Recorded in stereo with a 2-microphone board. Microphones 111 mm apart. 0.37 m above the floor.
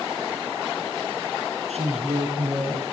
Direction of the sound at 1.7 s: 75° right (ahead or behind).